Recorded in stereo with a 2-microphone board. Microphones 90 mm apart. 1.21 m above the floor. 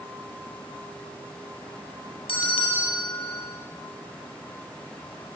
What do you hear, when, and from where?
2.3 s a bell: 80° left, 5 m